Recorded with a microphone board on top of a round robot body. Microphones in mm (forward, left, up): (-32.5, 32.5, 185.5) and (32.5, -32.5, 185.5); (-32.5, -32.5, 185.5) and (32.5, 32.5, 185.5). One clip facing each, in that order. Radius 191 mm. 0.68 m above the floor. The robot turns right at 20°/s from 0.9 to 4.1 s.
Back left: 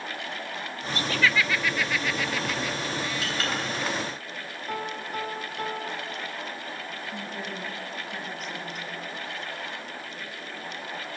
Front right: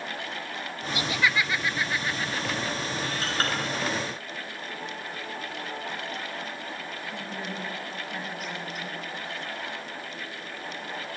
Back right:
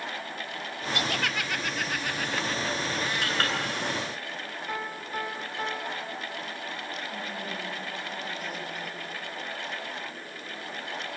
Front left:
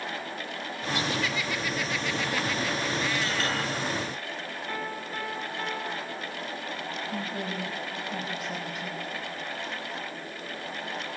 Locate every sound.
0.9 s laughter: 125° right, 1.3 m; by 3.5 s 70° right, 1.3 m
3.2 s a clink: 100° right, 9 m; by 3.5 s 95° right, 9 m
4.7 s a piano: 150° left, 2.5 m
7.1 s a woman speaking: 40° left, 5.5 m